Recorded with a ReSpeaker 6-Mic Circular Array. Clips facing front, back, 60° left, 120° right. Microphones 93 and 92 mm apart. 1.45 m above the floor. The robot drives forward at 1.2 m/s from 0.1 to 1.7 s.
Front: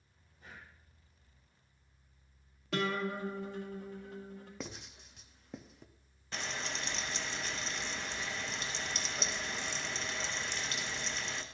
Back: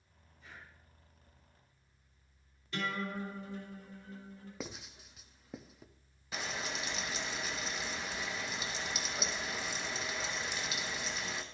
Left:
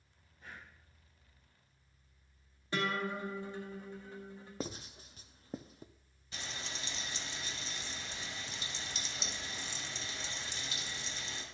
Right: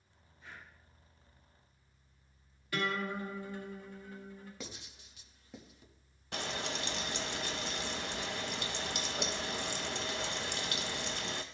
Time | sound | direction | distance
0.4 | breathing | 20° left | 2.5 m
2.7 | a guitar | 5° right | 1.9 m
4.6 | writing | 95° left | 0.5 m
6.3 | frying | 95° right | 0.6 m